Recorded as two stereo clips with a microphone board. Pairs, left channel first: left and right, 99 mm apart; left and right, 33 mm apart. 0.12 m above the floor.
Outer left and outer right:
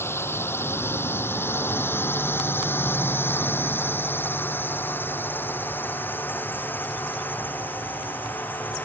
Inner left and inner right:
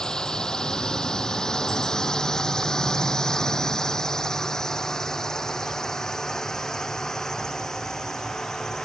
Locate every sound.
0.0 s a drone: 25° left (ahead or behind); by 8.9 s 20° left (ahead or behind)